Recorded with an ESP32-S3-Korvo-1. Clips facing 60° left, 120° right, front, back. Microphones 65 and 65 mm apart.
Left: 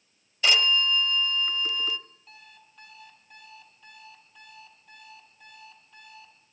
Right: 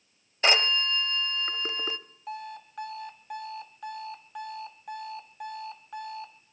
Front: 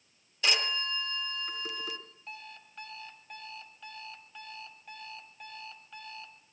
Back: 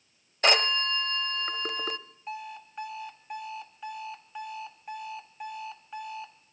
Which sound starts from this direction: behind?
A phone ringing, at 0.4 s.